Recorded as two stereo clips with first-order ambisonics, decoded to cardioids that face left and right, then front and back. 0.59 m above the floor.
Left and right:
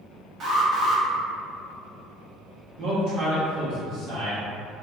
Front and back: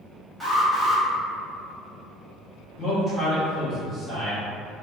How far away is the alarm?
About 0.9 m.